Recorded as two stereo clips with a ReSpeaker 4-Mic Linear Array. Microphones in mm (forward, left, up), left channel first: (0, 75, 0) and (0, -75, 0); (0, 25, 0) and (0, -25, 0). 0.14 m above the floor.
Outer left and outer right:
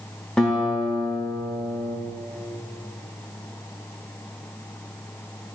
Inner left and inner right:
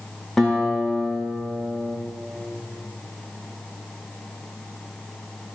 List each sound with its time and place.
0.4 s a guitar: 5° left (ahead or behind), 7 m